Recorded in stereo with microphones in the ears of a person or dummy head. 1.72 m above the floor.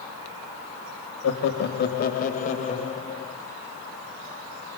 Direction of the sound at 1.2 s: 70° left (ahead or behind).